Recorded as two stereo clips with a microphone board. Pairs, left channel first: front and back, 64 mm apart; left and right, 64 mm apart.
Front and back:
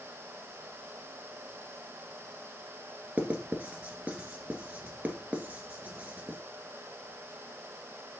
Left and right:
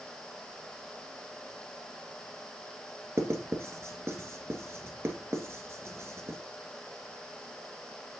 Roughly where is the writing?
Behind right.